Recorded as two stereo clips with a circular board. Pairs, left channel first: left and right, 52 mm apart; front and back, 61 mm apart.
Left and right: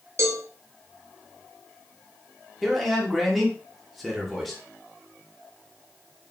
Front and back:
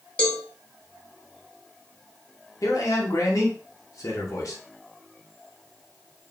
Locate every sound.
0.2 s a cowbell: 70° right, 1.6 m
2.6 s a man speaking: straight ahead, 2.5 m